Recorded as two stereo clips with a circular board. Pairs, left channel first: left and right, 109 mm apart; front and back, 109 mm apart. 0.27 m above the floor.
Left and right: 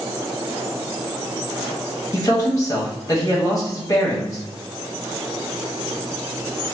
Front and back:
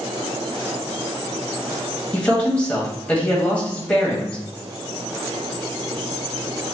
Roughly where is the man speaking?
Left.